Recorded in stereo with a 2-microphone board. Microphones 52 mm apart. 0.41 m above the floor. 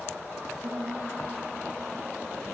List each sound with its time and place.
0.6 s a piano: 70° right (ahead or behind), 8.5 m